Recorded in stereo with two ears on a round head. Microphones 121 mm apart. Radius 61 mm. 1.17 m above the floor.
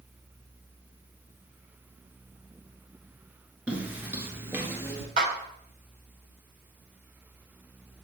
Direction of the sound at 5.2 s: 70° right (ahead or behind).